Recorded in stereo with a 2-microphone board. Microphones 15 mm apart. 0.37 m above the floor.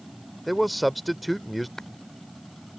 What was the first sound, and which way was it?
A man speaking, centre (ahead or behind).